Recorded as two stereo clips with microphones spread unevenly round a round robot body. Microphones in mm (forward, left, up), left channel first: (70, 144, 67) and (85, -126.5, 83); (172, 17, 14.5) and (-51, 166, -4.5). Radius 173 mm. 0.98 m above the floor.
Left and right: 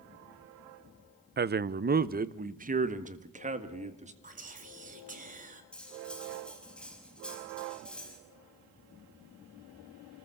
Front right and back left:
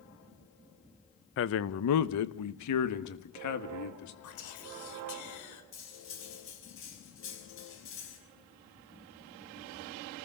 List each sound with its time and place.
1.4 s a man speaking: 50° right, 0.8 m; by 4.1 s 20° right, 2.5 m
4.2 s whispering: 25° right, 4 m
5.7 s cutlery clinking: 5° left, 5 m